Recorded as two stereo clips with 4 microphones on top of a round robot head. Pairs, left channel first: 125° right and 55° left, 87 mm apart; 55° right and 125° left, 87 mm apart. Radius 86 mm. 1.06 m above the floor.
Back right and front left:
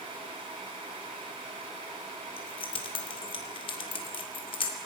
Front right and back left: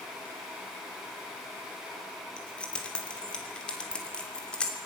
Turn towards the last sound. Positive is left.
turn(degrees=-135)